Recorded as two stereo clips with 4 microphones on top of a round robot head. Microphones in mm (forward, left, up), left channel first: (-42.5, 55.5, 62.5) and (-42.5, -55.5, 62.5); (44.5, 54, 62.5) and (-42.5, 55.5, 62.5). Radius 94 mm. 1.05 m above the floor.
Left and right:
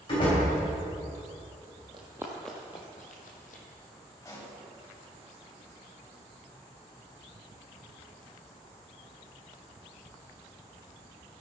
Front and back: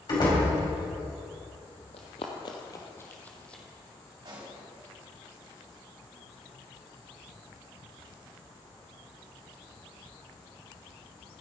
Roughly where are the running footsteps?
Ahead right.